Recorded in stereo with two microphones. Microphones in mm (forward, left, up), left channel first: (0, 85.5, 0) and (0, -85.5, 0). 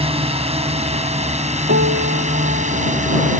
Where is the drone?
35° right (ahead or behind); by 3.4 s 45° right (ahead or behind).